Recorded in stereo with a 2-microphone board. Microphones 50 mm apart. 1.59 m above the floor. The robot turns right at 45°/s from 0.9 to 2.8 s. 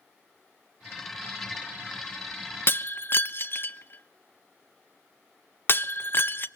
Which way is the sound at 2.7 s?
45° left (ahead or behind).